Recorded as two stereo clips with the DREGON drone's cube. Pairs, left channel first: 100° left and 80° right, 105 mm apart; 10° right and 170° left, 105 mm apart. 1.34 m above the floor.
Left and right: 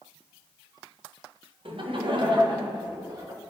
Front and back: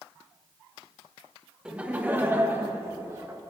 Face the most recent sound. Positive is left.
turn(degrees=-130)